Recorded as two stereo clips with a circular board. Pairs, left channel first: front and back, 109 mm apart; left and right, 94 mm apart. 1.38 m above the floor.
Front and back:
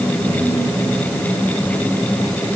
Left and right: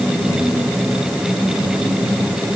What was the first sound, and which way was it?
Only background noise.